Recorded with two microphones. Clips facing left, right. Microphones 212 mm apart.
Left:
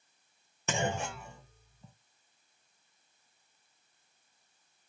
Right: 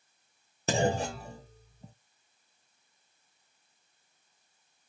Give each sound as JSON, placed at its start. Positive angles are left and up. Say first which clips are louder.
{"t": 0.7, "sound": "a clunk", "louder": "right 6 dB", "side_deg": -35, "distance_m": 0.5}